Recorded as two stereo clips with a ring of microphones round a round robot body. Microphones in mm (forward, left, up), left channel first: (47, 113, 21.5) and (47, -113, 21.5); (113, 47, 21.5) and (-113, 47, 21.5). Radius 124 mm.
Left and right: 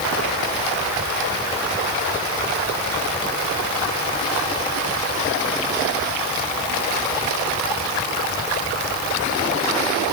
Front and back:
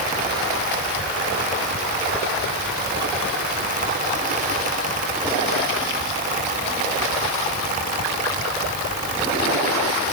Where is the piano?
No piano in this recording.